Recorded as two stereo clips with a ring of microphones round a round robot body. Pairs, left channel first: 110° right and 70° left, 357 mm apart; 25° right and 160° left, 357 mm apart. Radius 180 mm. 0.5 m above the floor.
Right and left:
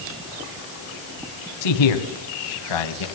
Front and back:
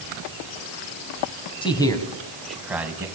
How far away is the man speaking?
About 3 m.